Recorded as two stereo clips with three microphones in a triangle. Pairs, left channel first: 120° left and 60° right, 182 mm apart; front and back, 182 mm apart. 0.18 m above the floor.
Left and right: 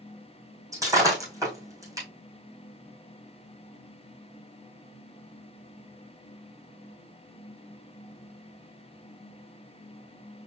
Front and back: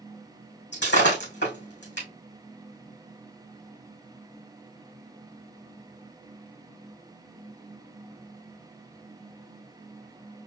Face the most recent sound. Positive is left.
turn(degrees=10)